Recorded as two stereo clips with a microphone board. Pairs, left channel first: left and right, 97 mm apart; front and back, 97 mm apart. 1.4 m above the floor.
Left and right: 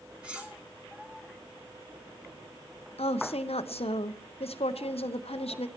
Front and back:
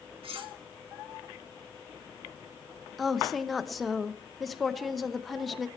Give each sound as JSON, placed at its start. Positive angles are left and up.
{"t": 0.2, "sound": "cutlery clinking", "azimuth_deg": -170, "distance_m": 1.9}
{"t": 3.0, "sound": "a woman speaking", "azimuth_deg": 90, "distance_m": 0.8}